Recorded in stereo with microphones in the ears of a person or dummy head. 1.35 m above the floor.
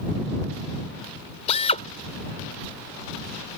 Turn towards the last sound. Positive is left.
turn(degrees=35)  # may be behind; listen again after turning